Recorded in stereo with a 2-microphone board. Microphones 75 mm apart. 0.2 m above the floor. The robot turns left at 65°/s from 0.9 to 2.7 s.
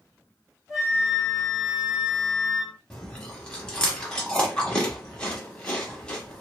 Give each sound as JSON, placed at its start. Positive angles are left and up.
{"t": 0.7, "sound": "a flute", "azimuth_deg": -175, "distance_m": 1.2}
{"t": 2.9, "sound": "chewing", "side_deg": 10, "distance_m": 0.9}